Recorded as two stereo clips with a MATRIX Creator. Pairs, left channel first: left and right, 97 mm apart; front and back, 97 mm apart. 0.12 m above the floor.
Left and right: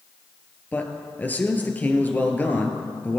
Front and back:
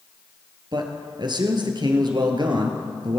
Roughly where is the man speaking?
Behind left.